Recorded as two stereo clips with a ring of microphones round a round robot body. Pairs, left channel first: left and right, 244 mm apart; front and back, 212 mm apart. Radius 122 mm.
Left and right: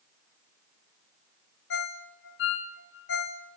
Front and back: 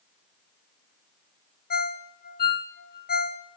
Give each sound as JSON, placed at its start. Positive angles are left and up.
{"t": 1.7, "sound": "a ringtone", "azimuth_deg": 45, "distance_m": 1.0}